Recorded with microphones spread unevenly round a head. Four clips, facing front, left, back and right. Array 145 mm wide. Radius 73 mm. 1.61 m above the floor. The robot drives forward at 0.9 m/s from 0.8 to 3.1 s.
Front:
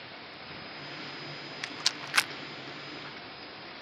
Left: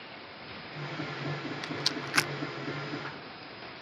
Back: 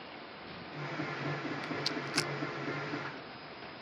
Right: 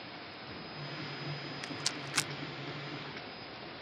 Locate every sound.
1.6 s a rattle: 15° left; by 2.3 s 40° left